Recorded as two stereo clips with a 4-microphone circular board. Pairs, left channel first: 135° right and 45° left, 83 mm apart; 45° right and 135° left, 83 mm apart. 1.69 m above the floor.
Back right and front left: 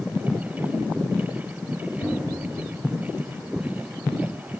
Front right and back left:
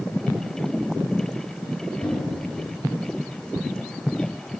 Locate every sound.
2.0 s knocking: 95° right, 4.5 m